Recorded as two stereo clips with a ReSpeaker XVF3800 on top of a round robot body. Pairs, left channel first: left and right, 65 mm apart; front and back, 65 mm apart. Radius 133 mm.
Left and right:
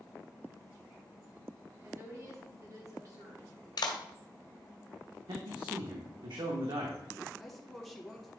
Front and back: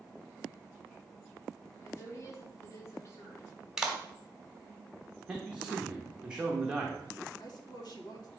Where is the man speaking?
100° right, 1.2 m.